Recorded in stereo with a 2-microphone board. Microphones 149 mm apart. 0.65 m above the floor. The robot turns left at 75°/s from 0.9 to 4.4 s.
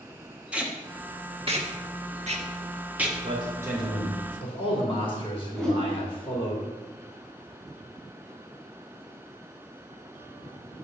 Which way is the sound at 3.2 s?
130° right.